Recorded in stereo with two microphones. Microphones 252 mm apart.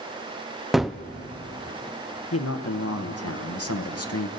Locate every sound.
0.7 s a gunshot: centre (ahead or behind), 0.6 m
2.3 s a man speaking: 80° left, 1.0 m